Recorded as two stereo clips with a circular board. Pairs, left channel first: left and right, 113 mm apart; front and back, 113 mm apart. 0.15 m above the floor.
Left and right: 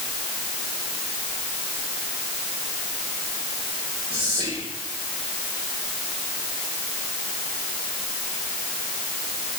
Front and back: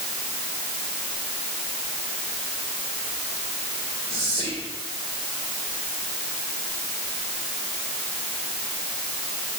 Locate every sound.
4.1 s whispering: 55° right, 6 m